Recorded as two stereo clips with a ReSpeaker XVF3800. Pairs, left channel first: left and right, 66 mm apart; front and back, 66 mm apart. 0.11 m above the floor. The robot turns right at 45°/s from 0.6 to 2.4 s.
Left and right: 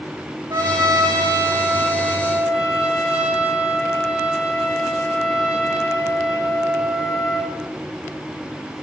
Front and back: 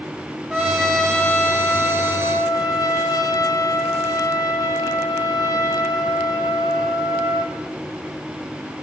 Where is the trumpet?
100° right, 2 m; by 7.5 s 15° right, 2 m.